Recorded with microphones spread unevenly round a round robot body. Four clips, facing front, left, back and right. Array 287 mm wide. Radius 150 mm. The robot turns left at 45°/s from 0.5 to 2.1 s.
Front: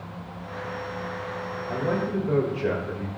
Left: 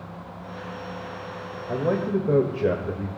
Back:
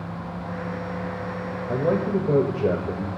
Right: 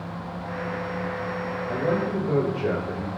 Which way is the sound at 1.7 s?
160° left.